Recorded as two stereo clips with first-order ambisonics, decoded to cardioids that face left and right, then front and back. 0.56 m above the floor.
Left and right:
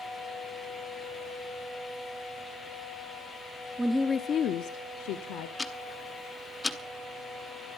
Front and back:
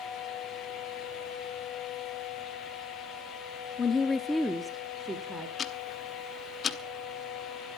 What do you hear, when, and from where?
3.8 s a woman speaking: 20° right, 0.6 m; by 5.5 s 105° left, 1.4 m
5.6 s ticking: 25° left, 0.9 m